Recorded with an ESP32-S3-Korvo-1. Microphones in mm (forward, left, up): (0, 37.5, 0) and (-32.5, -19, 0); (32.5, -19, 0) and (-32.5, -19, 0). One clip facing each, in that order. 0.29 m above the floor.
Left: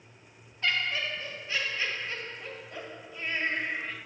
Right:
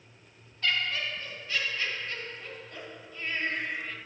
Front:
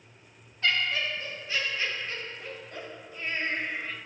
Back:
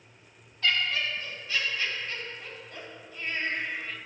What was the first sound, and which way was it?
Laughter, 25° left.